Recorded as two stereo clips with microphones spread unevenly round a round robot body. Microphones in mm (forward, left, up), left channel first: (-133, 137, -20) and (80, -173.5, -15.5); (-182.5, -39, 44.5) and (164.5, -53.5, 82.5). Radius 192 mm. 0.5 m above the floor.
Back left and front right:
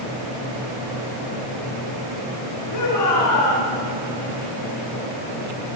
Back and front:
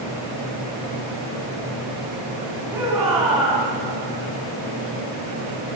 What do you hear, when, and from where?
2.7 s a shout: 80° left, 6 m